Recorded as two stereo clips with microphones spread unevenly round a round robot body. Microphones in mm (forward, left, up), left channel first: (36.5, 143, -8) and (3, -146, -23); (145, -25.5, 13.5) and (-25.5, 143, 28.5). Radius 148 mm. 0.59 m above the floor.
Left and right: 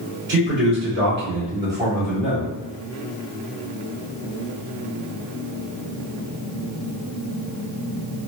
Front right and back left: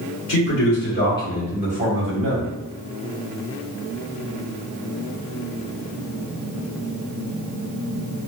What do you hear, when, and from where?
0.3 s a man speaking: 45° right, 1.5 m; by 2.5 s 170° left, 1.8 m